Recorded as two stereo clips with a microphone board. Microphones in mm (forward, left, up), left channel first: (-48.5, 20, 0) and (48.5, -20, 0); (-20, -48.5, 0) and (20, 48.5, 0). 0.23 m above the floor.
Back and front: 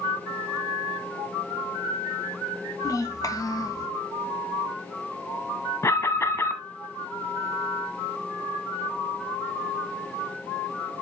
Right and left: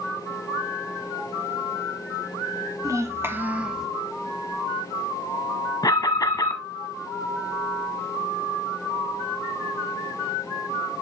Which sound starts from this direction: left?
A child speaking, at 2.8 s.